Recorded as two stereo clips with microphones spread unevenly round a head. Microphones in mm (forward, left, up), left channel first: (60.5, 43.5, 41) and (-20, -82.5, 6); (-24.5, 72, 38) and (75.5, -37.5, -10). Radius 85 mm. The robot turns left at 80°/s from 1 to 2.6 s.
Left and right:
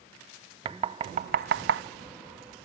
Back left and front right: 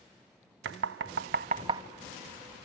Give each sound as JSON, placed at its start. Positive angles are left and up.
{"t": 0.7, "sound": "knocking", "azimuth_deg": -60, "distance_m": 0.5}